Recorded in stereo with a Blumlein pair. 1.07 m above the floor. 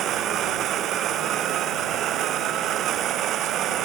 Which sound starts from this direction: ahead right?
A machine running, at 0.0 s.